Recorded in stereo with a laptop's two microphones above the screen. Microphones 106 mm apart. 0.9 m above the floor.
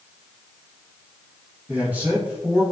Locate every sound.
1.7 s a man speaking: 15° right (ahead or behind), 0.6 m